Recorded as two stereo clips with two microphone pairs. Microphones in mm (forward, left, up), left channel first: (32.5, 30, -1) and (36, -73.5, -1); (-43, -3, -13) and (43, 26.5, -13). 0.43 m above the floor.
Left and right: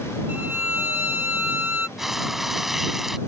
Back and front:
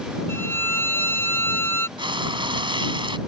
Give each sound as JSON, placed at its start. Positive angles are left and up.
{"t": 0.3, "sound": "a violin", "azimuth_deg": -140}
{"t": 2.0, "sound": "frying", "azimuth_deg": 0}